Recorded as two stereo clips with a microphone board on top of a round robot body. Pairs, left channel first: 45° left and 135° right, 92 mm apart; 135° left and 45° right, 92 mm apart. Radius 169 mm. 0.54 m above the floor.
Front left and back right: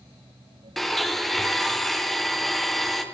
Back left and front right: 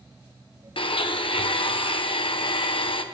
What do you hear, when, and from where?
0.8 s a blender: 135° left, 2 m